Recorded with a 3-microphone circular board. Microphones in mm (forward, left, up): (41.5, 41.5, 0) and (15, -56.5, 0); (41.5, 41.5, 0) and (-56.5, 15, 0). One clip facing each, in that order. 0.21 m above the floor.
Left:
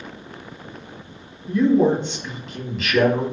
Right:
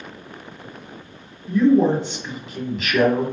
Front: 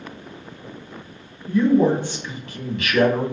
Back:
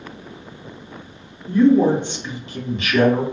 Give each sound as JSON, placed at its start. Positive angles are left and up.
{"t": 1.5, "sound": "a man speaking", "azimuth_deg": 170, "distance_m": 1.1}